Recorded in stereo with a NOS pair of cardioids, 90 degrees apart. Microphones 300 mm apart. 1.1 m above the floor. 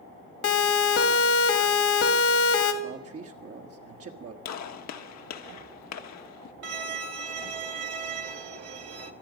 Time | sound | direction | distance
0.4 | a siren | 65° left | 2 m
2.8 | a man speaking | 50° right | 1.6 m
4.5 | a gunshot | 65° left | 1.2 m
6.6 | a violin | 55° right | 1.4 m